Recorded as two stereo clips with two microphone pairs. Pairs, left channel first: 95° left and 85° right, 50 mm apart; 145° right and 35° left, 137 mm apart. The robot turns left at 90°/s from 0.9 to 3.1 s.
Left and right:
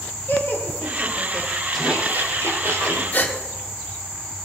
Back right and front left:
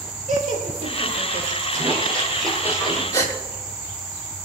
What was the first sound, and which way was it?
Laughter, 55° left.